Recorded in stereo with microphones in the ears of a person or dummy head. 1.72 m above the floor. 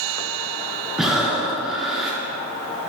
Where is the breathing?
5° right (ahead or behind), 1.1 m.